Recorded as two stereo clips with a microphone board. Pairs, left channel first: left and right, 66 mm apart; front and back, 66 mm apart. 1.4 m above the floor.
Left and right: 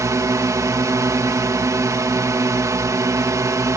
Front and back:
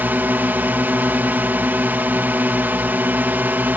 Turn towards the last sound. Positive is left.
turn(degrees=-120)